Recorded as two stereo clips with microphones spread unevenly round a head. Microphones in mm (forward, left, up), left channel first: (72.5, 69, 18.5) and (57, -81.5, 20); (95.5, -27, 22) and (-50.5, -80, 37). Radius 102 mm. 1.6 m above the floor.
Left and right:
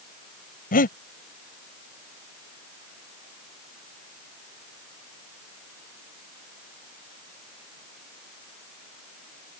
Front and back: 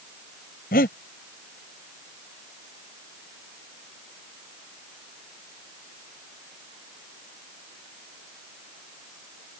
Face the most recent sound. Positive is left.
turn(degrees=70)